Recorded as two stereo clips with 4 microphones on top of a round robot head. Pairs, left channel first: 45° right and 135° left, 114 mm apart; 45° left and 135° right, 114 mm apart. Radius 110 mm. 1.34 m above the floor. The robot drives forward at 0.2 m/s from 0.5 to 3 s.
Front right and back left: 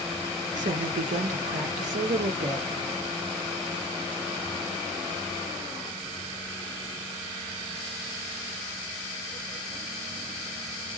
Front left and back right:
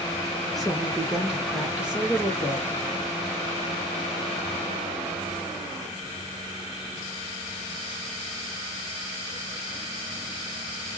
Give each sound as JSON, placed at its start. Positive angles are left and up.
{"t": 0.5, "sound": "a woman speaking", "azimuth_deg": 135, "distance_m": 1.2}